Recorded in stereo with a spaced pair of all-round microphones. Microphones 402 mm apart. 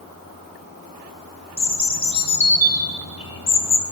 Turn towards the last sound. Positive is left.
turn(degrees=65)  # may be behind; listen again after turning